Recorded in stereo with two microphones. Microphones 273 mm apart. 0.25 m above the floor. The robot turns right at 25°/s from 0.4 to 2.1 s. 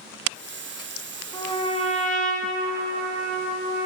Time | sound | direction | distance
1.3 | a trumpet | 15° left (ahead or behind) | 1.0 m